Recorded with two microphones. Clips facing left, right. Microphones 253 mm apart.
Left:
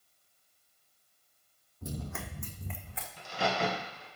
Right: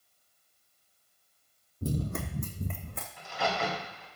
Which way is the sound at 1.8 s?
35° right (ahead or behind).